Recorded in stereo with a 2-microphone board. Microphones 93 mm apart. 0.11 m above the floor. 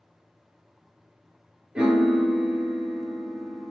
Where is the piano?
10° right (ahead or behind), 0.9 m.